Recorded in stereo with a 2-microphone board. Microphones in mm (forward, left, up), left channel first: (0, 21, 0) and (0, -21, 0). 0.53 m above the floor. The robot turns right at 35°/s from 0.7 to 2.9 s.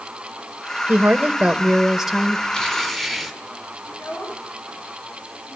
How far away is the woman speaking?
About 2.5 m.